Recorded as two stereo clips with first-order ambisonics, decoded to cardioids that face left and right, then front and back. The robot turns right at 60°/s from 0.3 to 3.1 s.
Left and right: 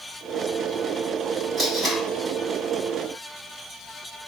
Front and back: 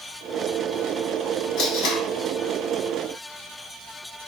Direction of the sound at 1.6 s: 20° right.